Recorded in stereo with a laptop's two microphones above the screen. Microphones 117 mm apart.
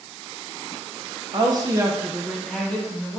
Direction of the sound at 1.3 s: 40° right (ahead or behind).